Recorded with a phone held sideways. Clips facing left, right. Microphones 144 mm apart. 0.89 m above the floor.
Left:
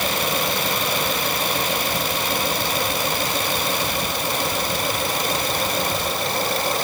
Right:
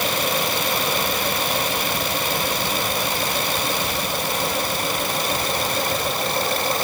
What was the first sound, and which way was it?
Only background noise.